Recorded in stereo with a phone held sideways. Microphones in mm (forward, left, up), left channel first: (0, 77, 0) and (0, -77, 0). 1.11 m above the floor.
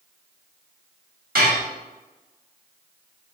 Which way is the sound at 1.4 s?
70° right (ahead or behind).